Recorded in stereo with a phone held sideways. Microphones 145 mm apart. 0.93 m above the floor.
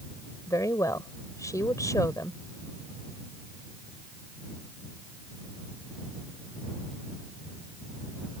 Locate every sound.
0.5 s a woman speaking: 20° left (ahead or behind)